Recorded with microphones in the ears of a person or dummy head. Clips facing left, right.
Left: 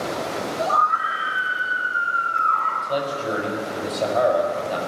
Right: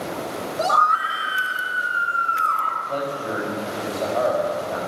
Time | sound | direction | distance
0.6 | a scream | 65° right (ahead or behind) | 1.4 m
2.8 | a man speaking | 30° left (ahead or behind) | 5 m